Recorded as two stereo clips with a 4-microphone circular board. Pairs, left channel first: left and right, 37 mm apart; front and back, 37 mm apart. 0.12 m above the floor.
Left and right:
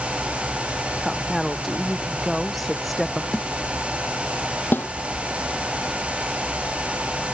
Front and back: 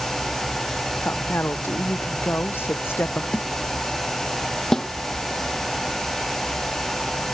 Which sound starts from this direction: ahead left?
A snare drum, at 3.3 s.